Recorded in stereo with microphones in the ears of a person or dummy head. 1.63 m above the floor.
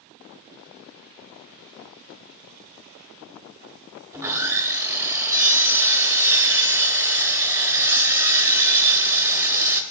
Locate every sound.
4.1 s sawing: 15° right (ahead or behind), 1.0 m